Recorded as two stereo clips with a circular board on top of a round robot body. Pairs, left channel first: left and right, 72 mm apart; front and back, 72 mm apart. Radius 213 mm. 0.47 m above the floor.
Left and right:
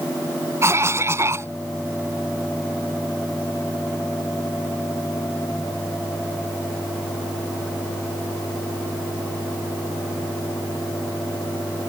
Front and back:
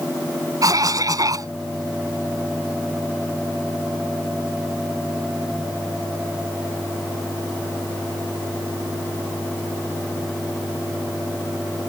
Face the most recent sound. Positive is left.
turn(degrees=-145)